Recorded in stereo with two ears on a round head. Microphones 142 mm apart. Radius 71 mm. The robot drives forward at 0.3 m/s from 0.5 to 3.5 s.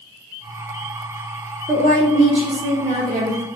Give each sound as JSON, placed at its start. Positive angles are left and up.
{"t": 1.7, "sound": "a woman speaking", "side_deg": -40, "distance_m": 1.7}